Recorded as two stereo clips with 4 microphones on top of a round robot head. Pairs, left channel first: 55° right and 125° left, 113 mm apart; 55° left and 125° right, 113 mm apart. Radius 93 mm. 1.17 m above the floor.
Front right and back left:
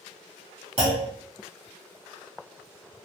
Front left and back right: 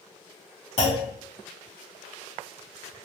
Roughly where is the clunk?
Left.